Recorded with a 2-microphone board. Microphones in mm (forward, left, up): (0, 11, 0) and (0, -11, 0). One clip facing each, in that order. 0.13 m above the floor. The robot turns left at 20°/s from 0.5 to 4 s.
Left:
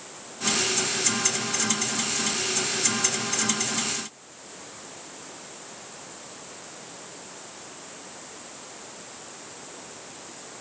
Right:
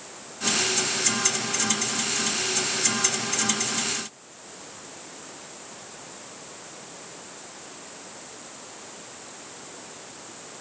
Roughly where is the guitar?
No guitar in this recording.